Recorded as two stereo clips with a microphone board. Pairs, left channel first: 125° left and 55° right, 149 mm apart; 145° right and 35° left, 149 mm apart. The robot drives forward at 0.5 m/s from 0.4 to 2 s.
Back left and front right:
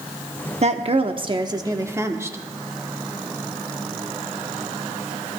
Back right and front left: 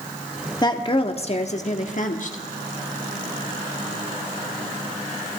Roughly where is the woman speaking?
Right.